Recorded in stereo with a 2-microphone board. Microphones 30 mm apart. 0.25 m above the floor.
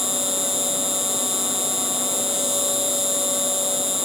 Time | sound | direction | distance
0.0 | an insect | 10° right (ahead or behind) | ?